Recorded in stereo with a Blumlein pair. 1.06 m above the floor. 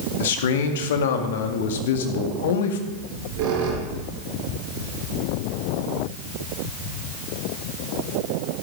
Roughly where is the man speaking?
Ahead left.